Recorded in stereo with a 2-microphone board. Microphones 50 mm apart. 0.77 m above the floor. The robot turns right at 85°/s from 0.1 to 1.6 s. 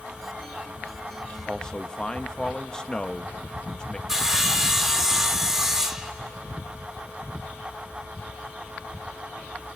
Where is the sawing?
10° right (ahead or behind), 0.9 m.